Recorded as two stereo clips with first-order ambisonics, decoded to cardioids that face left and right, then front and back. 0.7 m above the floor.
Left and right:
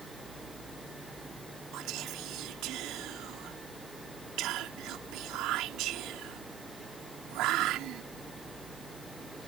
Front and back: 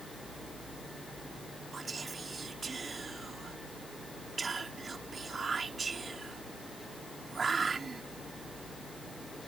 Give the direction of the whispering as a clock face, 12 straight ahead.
4 o'clock.